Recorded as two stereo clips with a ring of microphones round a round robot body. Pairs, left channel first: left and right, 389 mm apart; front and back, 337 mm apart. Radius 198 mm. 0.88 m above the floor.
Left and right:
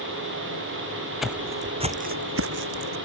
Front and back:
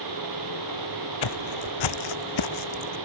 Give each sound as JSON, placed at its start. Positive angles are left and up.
{"t": 1.2, "sound": "footsteps", "azimuth_deg": 0}